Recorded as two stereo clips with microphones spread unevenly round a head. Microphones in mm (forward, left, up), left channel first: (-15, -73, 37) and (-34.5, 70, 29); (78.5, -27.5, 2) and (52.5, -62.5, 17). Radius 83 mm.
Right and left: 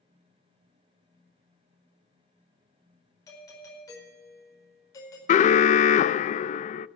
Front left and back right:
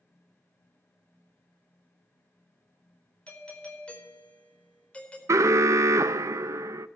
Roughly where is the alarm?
Behind right.